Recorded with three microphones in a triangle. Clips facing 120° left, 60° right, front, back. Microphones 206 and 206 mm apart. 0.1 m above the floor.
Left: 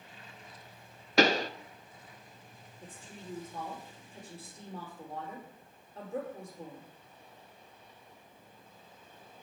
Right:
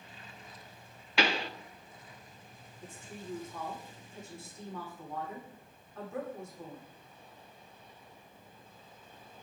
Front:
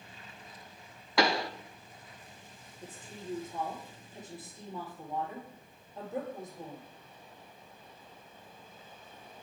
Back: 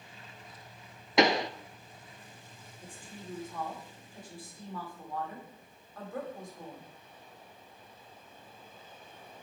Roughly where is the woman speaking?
Ahead left.